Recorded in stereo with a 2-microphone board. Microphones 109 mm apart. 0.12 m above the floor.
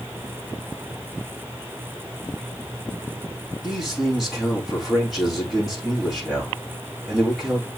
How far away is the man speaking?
About 6 m.